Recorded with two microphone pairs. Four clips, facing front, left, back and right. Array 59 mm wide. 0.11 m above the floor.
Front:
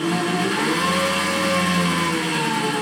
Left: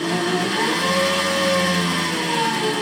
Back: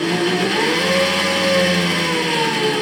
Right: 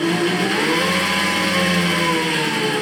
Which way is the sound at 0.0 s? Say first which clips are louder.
Right 2 dB, back 3 dB; 145° right.